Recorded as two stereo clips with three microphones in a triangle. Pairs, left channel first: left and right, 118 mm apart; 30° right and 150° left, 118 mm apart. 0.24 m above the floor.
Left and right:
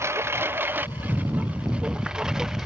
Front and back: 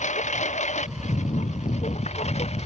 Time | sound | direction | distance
0.0 | a lawn mower | 20° right | ?